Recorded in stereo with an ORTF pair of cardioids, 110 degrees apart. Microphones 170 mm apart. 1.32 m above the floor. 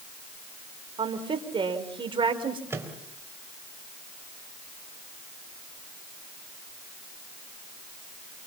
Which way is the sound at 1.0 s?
30° right.